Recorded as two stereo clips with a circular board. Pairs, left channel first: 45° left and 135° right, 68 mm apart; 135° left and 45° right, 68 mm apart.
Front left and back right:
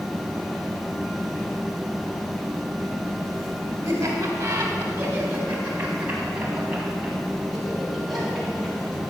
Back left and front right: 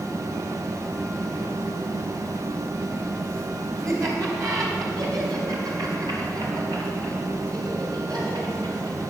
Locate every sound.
3.8 s laughter: 90° right, 3.5 m; by 9.0 s 45° right, 5.5 m